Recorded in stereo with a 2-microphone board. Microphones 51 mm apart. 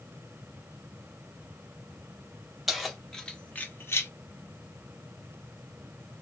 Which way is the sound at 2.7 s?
5° right (ahead or behind).